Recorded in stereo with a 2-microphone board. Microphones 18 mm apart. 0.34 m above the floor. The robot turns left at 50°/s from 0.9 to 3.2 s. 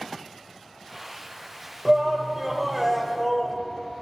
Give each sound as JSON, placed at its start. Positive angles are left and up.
{"t": 1.9, "sound": "a shout", "side_deg": -30, "distance_m": 1.0}